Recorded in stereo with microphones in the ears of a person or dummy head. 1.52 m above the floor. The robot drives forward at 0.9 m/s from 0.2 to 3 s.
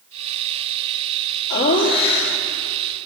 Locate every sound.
1.5 s laughter: 45° left (ahead or behind), 1.6 m; by 2.4 s 70° left (ahead or behind), 1.2 m